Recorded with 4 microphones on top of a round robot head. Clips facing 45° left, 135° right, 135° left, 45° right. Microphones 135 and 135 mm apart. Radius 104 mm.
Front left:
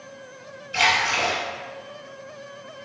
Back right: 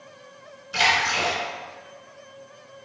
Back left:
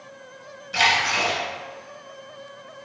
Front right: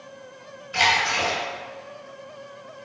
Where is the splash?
170° right, 2.0 m.